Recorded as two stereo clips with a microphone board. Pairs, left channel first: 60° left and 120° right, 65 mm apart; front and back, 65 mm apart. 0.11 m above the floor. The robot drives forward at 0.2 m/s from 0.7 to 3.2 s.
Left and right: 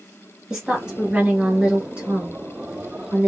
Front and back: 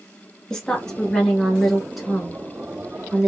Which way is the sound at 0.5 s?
55° right.